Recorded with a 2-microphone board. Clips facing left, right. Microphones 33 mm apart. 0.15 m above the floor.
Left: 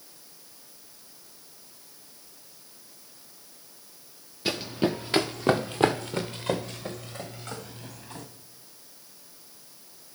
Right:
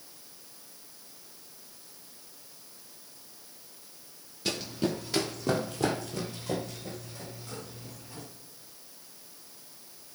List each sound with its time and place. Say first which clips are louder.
4.5 s running footsteps: left 4 dB; 25° left (ahead or behind), 0.8 m; by 8.3 s 75° left (ahead or behind), 3 m